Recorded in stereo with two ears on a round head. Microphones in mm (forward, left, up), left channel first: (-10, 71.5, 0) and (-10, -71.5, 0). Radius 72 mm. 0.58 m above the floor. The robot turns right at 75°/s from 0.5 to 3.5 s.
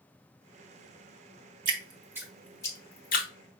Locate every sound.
1.6 s dripping: 50° right (ahead or behind), 1.3 m; by 3.3 s 65° left (ahead or behind), 1.3 m